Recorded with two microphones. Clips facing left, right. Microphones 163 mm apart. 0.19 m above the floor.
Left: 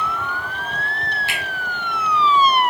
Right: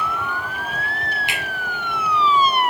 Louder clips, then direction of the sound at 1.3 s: Even; 20° right (ahead or behind).